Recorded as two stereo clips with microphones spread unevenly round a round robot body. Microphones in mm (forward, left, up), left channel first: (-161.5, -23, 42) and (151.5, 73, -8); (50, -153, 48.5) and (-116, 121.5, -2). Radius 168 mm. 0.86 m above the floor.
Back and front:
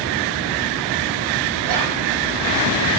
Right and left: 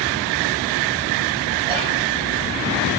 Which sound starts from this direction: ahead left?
Whispering, at 1.6 s.